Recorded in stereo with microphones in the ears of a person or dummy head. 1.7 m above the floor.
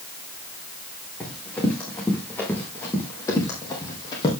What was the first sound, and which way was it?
Running footsteps, 10° left (ahead or behind).